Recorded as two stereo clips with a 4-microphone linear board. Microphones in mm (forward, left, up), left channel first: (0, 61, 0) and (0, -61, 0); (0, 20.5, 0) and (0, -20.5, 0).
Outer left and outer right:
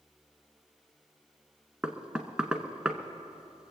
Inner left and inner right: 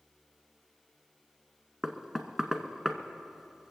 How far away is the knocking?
About 1.0 m.